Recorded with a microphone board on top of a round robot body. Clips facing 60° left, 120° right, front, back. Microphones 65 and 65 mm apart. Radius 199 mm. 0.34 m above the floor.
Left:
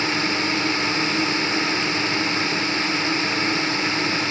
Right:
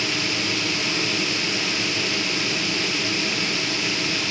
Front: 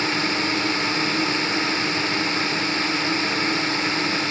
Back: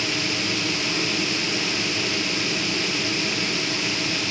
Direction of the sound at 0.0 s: 25° left.